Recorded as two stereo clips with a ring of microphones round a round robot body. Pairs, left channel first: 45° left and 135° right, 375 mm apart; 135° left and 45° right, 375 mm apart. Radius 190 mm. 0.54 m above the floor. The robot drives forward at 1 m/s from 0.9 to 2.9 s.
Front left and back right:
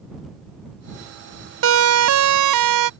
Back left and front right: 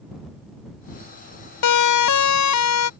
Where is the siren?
170° left; by 2.9 s 175° right.